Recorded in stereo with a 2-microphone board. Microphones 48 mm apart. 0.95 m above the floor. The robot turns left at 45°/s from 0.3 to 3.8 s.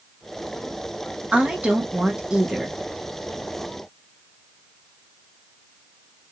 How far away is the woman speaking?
About 0.9 m.